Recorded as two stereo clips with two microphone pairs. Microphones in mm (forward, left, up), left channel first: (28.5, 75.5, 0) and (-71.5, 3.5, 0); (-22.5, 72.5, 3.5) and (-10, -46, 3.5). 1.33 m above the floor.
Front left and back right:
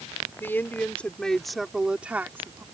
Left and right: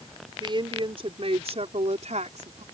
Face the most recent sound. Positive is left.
turn(degrees=-75)